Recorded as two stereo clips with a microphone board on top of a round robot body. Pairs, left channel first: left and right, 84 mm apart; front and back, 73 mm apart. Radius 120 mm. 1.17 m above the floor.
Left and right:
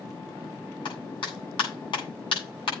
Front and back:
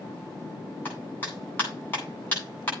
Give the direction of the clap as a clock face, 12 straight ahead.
10 o'clock.